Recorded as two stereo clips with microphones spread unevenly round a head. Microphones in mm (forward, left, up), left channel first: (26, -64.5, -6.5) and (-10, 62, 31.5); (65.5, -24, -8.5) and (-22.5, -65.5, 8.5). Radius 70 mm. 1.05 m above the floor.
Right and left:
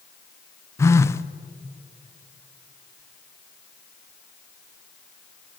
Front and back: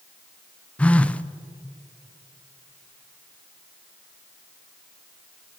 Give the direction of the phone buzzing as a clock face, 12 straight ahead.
1 o'clock.